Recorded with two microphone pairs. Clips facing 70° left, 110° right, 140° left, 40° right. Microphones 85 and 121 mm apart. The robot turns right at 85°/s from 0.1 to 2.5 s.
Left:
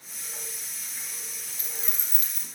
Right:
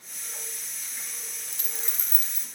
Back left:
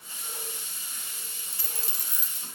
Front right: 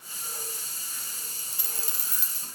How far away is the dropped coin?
About 0.9 m.